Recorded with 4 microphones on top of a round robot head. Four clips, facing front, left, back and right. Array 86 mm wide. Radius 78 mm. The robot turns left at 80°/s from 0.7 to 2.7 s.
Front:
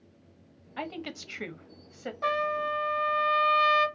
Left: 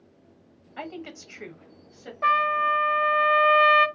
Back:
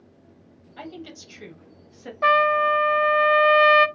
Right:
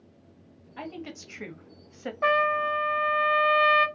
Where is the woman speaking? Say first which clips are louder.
Left 1 dB, front 2 dB; 35° left, 1.3 m; by 2.1 s 75° right, 1.3 m.